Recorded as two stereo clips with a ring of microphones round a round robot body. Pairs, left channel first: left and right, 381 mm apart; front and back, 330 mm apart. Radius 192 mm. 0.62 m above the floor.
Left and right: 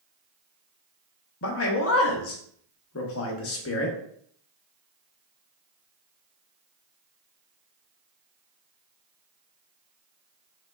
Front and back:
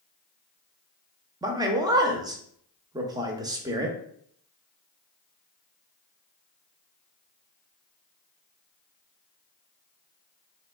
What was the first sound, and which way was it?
A man speaking, 110° left.